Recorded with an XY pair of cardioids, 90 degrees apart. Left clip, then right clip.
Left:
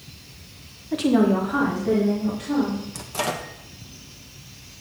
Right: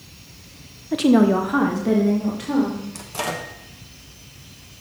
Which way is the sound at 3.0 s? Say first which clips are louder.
Left 1 dB; 10° left.